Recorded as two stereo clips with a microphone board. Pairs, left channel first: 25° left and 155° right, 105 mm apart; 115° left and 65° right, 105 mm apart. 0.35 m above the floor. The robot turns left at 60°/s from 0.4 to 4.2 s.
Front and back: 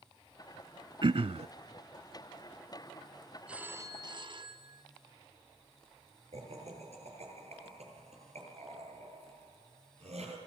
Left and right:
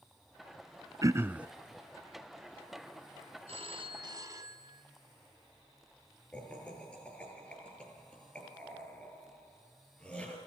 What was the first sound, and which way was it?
Throat clearing, 120° right.